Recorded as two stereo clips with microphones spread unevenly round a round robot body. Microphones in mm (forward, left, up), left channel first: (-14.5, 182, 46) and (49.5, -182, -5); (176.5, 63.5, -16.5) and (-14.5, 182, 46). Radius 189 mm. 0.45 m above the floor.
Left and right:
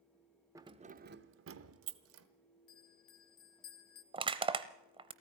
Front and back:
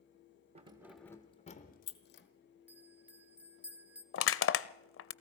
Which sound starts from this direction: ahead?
Crushing, at 4.1 s.